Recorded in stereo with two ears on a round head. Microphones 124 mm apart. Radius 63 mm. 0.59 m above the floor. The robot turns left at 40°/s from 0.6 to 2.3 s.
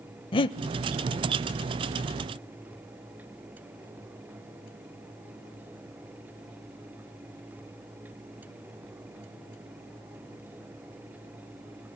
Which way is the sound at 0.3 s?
35° left (ahead or behind).